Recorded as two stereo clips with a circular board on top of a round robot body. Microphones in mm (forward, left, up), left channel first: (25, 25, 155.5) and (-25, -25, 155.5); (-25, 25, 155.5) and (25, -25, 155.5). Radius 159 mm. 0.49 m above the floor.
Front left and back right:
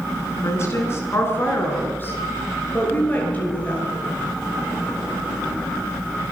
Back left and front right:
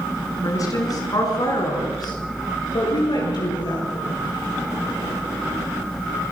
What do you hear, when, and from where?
0.4 s a woman speaking: 95° left, 6.5 m; by 4.1 s 115° left, 10.5 m